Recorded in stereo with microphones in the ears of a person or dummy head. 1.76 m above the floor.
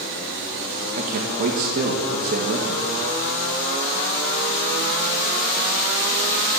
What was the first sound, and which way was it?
A man speaking, 50° right (ahead or behind).